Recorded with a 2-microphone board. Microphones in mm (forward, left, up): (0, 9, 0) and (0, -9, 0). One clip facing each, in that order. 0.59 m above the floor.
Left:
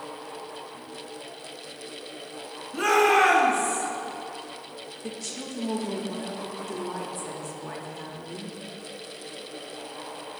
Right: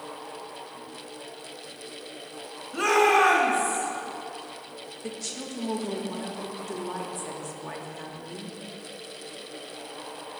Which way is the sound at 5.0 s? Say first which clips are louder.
Even; 10° right (ahead or behind).